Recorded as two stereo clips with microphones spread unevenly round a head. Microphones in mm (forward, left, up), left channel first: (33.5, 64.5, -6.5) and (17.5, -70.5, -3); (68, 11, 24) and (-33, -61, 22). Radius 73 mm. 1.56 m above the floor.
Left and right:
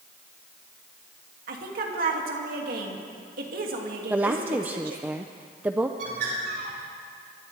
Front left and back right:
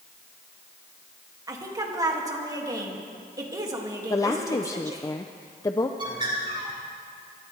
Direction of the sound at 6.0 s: 95° right.